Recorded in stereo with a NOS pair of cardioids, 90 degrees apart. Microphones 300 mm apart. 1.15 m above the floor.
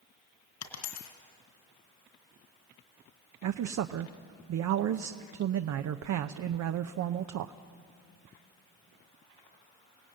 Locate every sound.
0.6 s a dropped coin: 65° left, 3 m
3.4 s a man speaking: 60° right, 0.7 m